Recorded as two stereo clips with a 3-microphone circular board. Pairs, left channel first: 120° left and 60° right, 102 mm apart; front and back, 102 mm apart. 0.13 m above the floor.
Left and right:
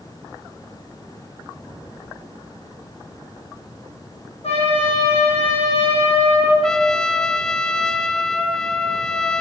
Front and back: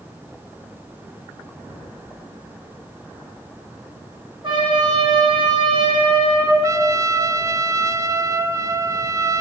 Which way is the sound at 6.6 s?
160° right.